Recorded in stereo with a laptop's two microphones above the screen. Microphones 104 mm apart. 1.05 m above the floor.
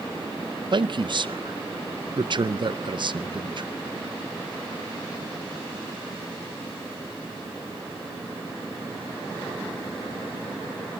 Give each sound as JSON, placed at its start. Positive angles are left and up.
{"t": 0.7, "sound": "a man speaking", "side_deg": -50, "distance_m": 0.5}